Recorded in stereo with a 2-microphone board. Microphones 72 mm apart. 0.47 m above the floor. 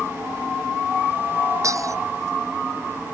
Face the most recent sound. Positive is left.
turn(degrees=-50)  # may be behind; listen again after turning